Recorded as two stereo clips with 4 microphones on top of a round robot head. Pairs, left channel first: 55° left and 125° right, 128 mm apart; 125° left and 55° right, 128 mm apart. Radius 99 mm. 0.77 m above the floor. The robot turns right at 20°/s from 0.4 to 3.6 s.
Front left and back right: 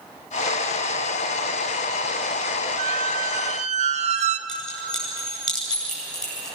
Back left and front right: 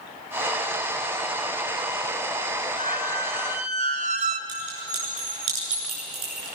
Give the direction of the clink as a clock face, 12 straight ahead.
1 o'clock.